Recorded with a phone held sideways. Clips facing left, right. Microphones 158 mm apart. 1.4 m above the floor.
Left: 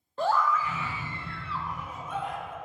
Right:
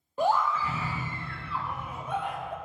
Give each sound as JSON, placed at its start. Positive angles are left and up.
{"t": 0.2, "sound": "a scream", "side_deg": -15, "distance_m": 0.9}